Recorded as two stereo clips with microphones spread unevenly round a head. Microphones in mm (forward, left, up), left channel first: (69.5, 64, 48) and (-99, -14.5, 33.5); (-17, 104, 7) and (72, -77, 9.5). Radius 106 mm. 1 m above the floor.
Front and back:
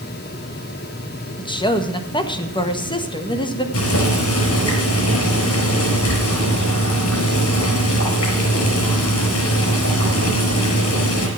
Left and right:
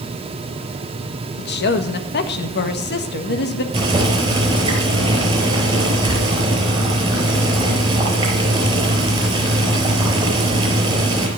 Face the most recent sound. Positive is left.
turn(degrees=5)